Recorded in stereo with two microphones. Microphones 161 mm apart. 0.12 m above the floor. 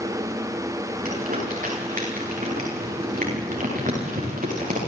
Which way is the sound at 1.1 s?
55° right (ahead or behind).